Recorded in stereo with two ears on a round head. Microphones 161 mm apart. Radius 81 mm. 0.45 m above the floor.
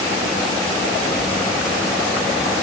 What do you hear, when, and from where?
Only background noise.